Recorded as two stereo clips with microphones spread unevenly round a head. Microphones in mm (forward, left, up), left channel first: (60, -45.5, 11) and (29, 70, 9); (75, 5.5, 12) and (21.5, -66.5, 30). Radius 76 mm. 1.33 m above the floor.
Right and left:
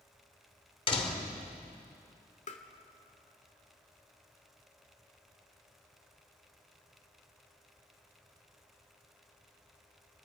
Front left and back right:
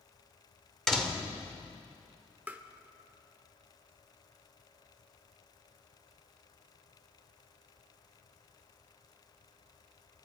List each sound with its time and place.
0.9 s a door slam: 35° right, 3 m
2.5 s tapping: 60° right, 1.8 m